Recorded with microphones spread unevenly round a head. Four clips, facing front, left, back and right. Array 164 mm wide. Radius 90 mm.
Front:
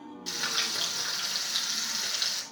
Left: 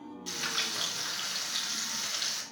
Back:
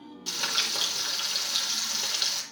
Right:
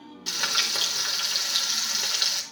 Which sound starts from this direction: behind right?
Frying, at 0.3 s.